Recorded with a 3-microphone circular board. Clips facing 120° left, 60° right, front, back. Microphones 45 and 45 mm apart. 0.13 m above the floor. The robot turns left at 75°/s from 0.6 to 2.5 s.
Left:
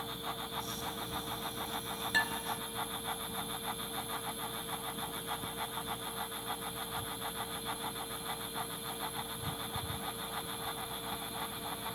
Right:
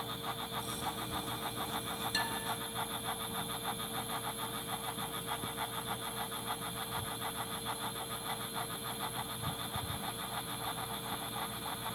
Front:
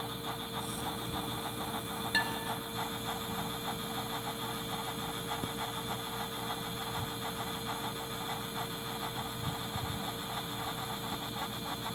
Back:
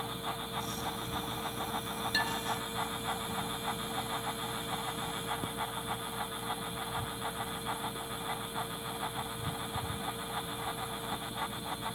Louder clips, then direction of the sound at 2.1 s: Left 6 dB, front 1 dB; 70° left.